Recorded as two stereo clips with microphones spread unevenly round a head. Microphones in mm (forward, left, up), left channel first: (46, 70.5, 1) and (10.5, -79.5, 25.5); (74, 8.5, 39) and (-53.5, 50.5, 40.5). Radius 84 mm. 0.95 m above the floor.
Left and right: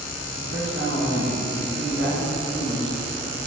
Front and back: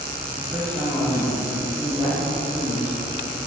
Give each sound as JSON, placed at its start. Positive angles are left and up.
{"t": 0.4, "sound": "a man speaking", "azimuth_deg": -135, "distance_m": 2.5}